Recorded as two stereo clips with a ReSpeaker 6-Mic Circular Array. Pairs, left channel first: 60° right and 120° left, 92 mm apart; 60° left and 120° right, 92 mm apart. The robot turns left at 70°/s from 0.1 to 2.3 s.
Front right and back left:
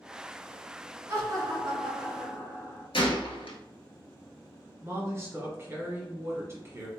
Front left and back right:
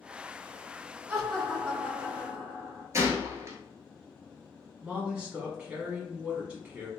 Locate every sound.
1.1 s laughter: 175° left, 1.5 m; by 2.8 s 90° left, 1.5 m
2.9 s a gunshot: 65° right, 0.7 m
4.8 s a woman speaking: 165° left, 1.4 m